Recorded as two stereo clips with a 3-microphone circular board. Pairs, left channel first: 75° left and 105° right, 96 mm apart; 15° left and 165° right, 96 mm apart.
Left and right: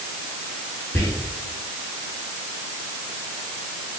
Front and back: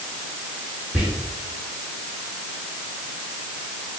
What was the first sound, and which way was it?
Whispering, 120° left.